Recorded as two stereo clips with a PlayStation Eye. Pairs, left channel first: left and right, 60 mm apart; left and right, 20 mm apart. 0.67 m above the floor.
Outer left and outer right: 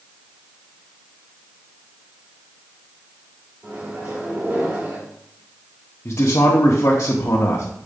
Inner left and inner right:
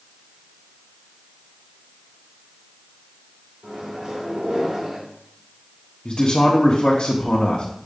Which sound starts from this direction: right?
A microwave, at 3.6 s.